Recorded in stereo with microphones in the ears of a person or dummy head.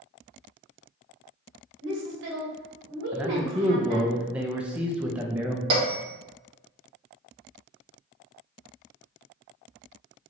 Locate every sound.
1.8 s a woman speaking: 65° right (ahead or behind), 1.5 m
3.1 s a man speaking: 5° right (ahead or behind), 0.6 m
5.7 s a bell: 35° right (ahead or behind), 1.4 m